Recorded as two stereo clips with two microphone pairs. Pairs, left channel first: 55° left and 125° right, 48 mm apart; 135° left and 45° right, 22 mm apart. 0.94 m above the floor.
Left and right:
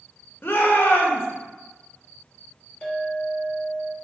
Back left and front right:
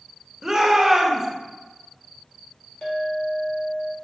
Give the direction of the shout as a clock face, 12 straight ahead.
11 o'clock.